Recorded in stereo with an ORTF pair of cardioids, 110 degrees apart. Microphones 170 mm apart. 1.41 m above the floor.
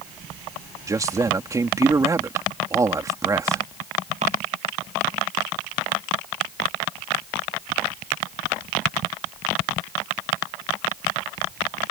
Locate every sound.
0.9 s a man speaking: 20° right